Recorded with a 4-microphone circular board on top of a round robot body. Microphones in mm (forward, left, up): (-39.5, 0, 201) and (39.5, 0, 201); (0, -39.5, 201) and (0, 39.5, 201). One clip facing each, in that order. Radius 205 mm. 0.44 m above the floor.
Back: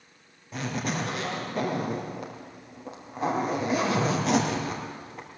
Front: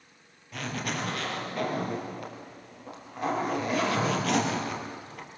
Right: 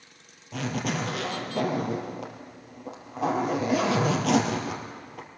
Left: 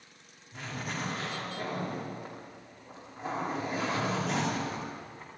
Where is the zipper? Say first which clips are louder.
Back 3 dB, right 8 dB; 110° right, 3 m.